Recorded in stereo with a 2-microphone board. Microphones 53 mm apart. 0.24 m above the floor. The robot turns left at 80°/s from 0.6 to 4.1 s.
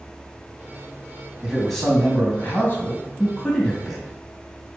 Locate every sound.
1.4 s a man speaking: 165° right, 1.9 m; by 4.0 s 15° right, 1.9 m